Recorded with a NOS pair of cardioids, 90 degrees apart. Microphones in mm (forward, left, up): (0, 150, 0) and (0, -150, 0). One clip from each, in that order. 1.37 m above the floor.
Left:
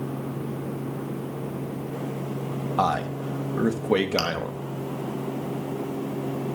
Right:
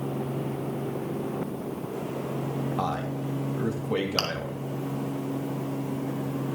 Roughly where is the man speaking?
Ahead left.